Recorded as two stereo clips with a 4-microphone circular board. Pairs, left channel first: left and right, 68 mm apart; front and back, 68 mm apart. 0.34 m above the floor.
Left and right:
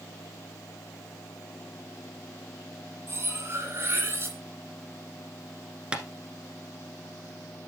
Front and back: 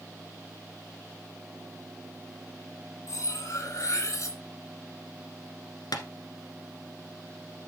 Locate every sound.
3.1 s cutlery clinking: 40° right, 2.5 m
5.9 s tapping: 15° right, 1.2 m